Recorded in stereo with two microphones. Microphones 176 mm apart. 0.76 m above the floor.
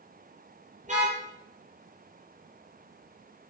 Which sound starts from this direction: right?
A car horn, at 0.8 s.